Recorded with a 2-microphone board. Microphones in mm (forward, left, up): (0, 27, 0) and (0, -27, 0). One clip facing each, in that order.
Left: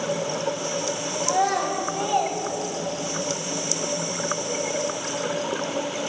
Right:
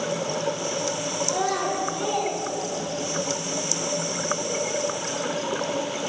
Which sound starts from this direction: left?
A child speaking, at 1.2 s.